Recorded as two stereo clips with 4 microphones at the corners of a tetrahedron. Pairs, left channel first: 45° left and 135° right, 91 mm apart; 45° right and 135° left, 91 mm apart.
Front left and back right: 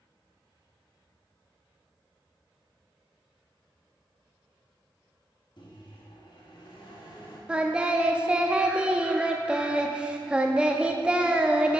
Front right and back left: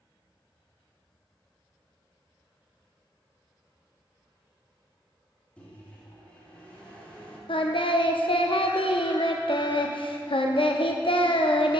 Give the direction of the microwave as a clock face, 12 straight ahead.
11 o'clock.